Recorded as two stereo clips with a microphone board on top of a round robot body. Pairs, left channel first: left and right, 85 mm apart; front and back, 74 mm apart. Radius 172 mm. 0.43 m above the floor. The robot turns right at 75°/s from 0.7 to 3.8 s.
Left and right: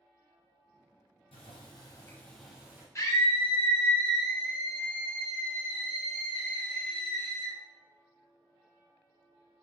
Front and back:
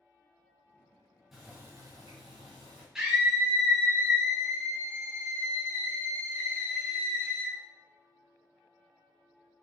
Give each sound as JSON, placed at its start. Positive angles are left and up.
{"t": 1.3, "sound": "boiling", "azimuth_deg": 95, "distance_m": 1.1}
{"t": 3.0, "sound": "a scream", "azimuth_deg": 100, "distance_m": 1.1}